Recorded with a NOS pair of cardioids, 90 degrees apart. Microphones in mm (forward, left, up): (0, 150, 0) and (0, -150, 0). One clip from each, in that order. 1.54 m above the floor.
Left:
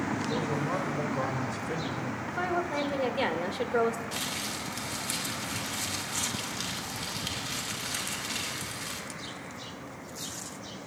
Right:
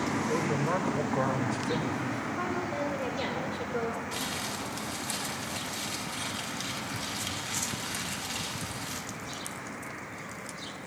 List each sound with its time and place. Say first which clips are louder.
0.3 s a man speaking: right 2 dB; 25° right, 2.5 m
2.3 s a woman speaking: left 6 dB; 50° left, 2.5 m
4.1 s crumpling: even; 15° left, 2.5 m